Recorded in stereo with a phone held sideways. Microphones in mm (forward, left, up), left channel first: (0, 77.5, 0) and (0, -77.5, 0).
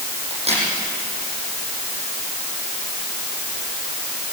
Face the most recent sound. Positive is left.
turn(degrees=-45)  # may be behind; listen again after turning